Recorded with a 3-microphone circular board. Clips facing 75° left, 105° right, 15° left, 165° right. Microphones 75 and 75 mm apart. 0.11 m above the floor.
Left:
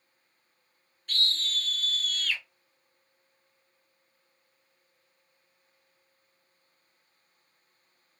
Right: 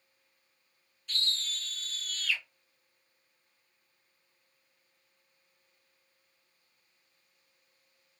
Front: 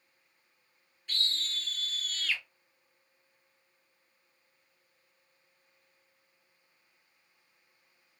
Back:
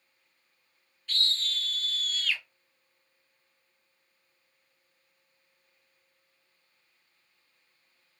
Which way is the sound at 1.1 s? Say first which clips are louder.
Left 5 dB, back 3 dB; 80° left.